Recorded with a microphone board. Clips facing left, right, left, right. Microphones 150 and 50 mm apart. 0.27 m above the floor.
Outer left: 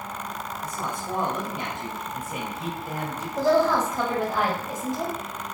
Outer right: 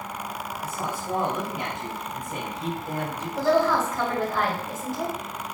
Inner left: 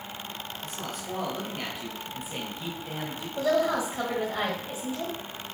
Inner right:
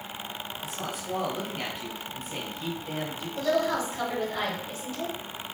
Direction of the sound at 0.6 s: 10° right (ahead or behind).